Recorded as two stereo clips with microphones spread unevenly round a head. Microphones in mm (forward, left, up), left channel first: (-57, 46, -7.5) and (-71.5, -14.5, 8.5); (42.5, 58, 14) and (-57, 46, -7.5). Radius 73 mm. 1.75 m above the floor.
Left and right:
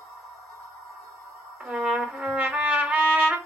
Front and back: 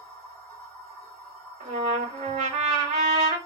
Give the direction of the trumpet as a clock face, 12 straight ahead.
5 o'clock.